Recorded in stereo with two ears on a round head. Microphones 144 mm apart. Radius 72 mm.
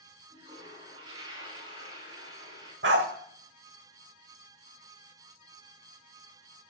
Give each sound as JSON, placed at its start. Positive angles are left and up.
{"t": 0.3, "sound": "a toilet flushing", "side_deg": -35, "distance_m": 5.5}
{"t": 2.8, "sound": "a dog barking", "side_deg": -85, "distance_m": 1.4}